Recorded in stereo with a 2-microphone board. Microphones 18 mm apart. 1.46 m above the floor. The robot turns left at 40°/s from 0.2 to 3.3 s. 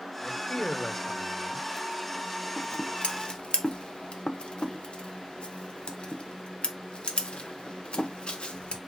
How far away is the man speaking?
About 0.9 m.